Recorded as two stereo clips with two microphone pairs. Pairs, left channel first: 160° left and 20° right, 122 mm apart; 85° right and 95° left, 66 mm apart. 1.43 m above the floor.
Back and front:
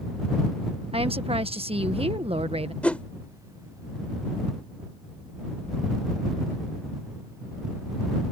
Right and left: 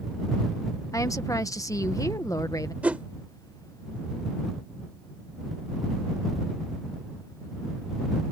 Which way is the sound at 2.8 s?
95° left.